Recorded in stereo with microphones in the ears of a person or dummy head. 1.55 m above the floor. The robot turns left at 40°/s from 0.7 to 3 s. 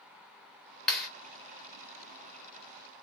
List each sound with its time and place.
0.9 s a clap: centre (ahead or behind), 1.7 m; by 1.1 s 5° right (ahead or behind), 1.7 m